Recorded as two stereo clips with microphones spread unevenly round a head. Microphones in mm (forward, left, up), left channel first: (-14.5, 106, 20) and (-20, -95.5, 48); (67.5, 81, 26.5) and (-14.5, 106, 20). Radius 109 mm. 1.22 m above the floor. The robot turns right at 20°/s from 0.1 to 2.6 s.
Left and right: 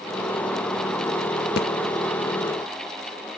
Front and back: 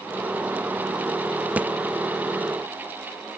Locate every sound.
1.6 s a thud: 95° left, 0.7 m; by 1.7 s 100° left, 0.7 m